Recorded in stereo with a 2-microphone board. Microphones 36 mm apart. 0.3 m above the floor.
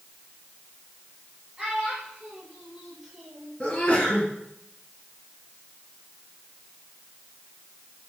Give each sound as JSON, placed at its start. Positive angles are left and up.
{"t": 1.6, "sound": "a child speaking", "side_deg": -10, "distance_m": 6.0}
{"t": 3.6, "sound": "a sneeze", "side_deg": 30, "distance_m": 5.0}